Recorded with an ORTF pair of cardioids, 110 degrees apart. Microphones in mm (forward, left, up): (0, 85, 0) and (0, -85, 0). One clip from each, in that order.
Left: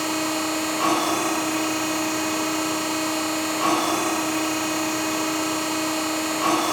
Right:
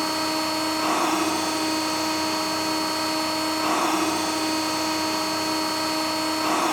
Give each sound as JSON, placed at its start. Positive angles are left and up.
{"t": 0.0, "sound": "a machine running", "azimuth_deg": 60, "distance_m": 3.5}